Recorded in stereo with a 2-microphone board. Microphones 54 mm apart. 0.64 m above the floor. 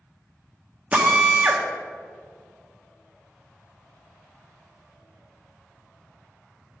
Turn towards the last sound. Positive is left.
turn(degrees=-25)  # may be behind; listen again after turning